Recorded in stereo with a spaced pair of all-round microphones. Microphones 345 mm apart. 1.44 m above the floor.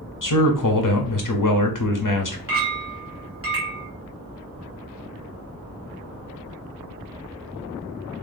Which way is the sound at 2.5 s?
40° right (ahead or behind).